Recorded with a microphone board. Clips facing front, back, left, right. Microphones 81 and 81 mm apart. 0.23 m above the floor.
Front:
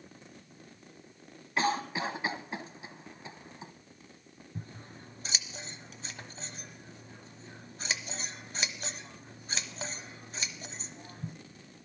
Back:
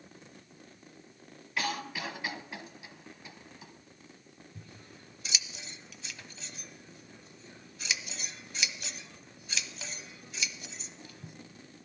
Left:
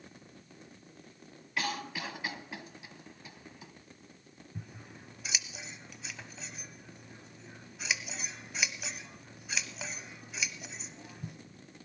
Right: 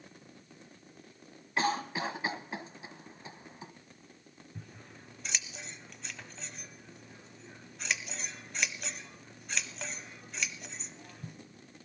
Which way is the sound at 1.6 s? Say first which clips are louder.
Front 5 dB, right 5 dB; 45° right.